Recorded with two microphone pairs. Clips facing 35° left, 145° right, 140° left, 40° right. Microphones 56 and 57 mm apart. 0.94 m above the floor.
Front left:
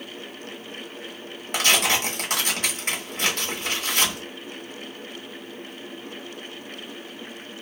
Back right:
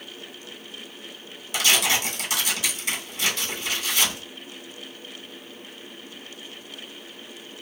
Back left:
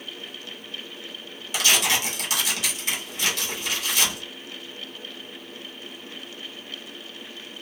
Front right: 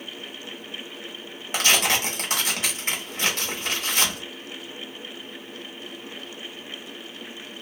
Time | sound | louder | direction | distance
1.5 | tearing paper | front left 1 dB, front right 1 dB | 5° left | 0.9 m